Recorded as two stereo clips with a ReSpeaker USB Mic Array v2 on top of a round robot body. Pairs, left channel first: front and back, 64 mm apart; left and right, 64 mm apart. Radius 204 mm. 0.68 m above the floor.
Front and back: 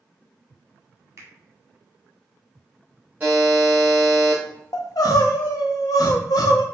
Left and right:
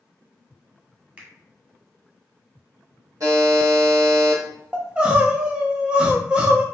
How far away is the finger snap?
About 2.0 m.